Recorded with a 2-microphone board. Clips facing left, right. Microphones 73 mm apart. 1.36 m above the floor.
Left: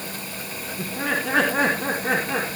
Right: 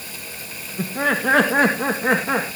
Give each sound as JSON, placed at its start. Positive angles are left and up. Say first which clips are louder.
{"t": 0.8, "sound": "laughter", "louder": "right 5 dB", "side_deg": -75, "distance_m": 1.7}